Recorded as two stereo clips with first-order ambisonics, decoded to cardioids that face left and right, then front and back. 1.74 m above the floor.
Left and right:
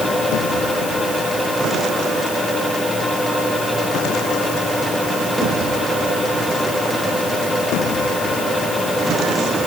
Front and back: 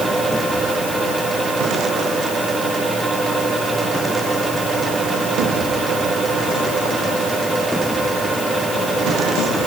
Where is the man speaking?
I don't hear a man speaking.